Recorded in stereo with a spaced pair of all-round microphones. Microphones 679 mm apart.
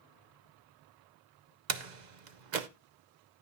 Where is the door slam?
80° right, 0.9 m.